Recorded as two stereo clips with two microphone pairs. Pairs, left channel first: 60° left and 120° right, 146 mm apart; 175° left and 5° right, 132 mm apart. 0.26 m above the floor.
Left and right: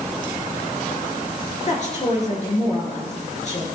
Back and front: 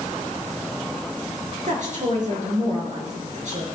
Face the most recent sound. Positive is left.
turn(degrees=20)